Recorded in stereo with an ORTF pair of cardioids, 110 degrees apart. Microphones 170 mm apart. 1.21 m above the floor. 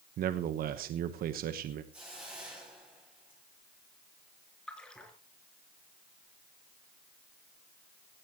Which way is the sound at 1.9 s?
10° right.